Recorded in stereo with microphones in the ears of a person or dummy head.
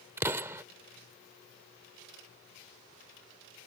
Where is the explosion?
20° right (ahead or behind).